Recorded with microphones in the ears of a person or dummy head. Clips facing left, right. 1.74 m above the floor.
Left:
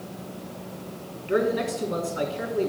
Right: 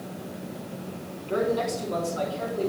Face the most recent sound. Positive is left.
turn(degrees=25)  # may be behind; listen again after turning